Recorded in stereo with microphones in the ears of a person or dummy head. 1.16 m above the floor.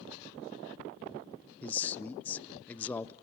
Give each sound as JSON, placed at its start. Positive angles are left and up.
{"t": 1.6, "sound": "a man speaking", "side_deg": 10, "distance_m": 0.6}